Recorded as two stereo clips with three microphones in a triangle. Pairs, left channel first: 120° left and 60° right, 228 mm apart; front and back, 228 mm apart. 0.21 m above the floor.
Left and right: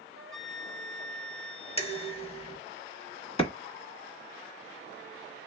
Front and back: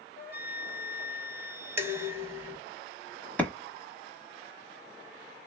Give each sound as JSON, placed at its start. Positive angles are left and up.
{"t": 0.2, "sound": "a flute", "azimuth_deg": -40, "distance_m": 0.7}
{"t": 1.8, "sound": "dishes clattering", "azimuth_deg": 115, "distance_m": 0.7}
{"t": 3.4, "sound": "a clap", "azimuth_deg": 80, "distance_m": 1.0}